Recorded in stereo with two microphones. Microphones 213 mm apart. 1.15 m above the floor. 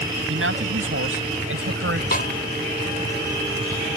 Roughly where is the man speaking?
Right.